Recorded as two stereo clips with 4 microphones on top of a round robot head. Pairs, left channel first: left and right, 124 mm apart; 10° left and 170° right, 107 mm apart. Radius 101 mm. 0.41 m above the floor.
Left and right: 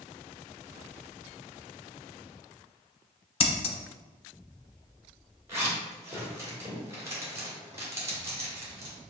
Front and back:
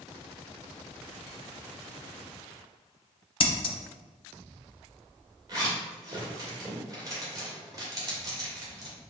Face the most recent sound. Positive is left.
turn(degrees=-145)